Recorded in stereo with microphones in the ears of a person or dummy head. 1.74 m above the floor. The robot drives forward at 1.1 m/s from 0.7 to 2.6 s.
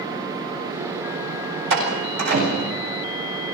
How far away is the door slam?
About 8.5 m.